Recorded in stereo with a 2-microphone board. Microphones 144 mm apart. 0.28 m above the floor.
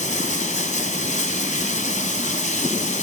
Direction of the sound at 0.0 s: 55° left (ahead or behind).